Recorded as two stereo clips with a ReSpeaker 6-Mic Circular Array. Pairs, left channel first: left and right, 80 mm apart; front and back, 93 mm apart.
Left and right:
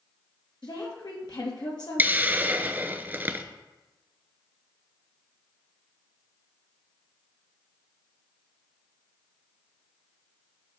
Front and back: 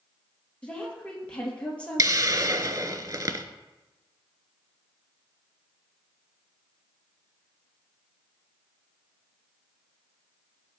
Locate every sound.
0.6 s a woman speaking: 75° left, 3 m
2.0 s a hiss: 150° right, 0.6 m